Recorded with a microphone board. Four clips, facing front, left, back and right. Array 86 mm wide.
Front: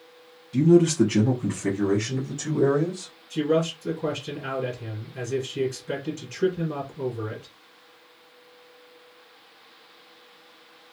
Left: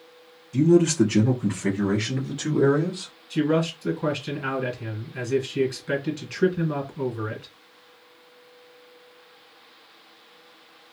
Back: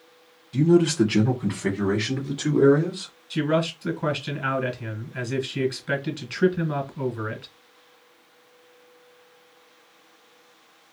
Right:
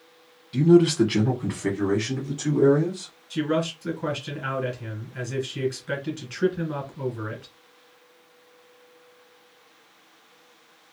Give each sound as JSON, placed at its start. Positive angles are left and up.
{"t": 0.5, "sound": "a man speaking", "azimuth_deg": -95, "distance_m": 1.3}
{"t": 3.3, "sound": "a man speaking", "azimuth_deg": 170, "distance_m": 1.8}